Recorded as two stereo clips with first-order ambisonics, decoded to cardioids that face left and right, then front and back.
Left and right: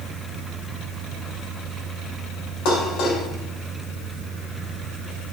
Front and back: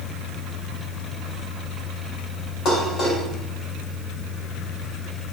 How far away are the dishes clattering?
About 2 m.